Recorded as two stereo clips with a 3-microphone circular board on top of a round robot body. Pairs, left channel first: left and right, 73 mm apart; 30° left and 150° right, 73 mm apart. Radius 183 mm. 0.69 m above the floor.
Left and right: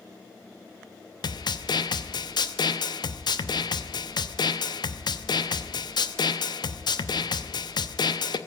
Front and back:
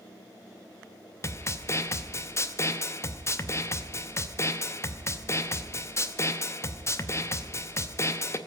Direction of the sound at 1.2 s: 80° left.